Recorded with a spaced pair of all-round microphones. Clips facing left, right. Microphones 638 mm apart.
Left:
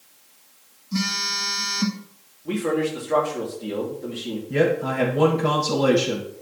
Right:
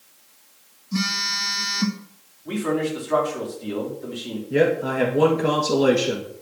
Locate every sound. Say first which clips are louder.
0.9 s a phone buzzing: even; centre (ahead or behind), 1.9 m
2.5 s a man speaking: left 1 dB; 55° left (ahead or behind), 3.5 m
4.5 s a man speaking: right 2 dB; 30° left (ahead or behind), 1.9 m